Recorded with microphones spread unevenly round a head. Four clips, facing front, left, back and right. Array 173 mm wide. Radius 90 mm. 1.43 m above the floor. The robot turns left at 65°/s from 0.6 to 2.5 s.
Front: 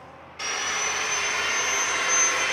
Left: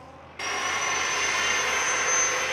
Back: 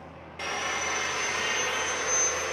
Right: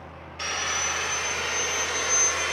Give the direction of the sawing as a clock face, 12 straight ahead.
7 o'clock.